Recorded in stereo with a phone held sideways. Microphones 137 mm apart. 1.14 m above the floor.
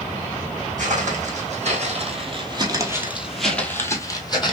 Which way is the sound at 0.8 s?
60° right (ahead or behind).